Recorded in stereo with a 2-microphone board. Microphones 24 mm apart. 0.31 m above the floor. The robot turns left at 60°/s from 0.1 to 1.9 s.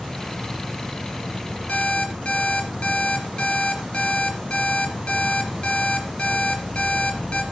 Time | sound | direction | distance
0.0 | an insect | 160° right | 5.5 m
1.7 | an alarm clock | 60° left (ahead or behind) | 2.5 m